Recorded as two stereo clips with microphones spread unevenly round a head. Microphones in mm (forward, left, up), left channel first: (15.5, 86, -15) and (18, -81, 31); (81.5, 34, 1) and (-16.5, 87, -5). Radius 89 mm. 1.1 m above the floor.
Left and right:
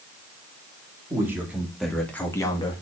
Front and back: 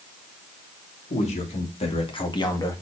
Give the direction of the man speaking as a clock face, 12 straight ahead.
12 o'clock.